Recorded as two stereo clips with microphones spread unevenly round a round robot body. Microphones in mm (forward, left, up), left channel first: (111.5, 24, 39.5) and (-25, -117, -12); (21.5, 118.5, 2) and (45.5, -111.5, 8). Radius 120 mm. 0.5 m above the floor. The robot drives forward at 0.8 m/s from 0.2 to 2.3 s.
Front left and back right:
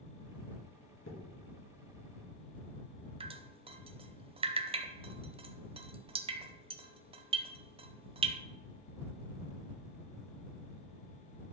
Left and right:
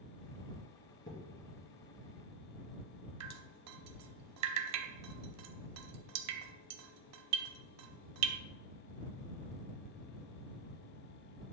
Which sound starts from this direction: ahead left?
A thud, at 1.1 s.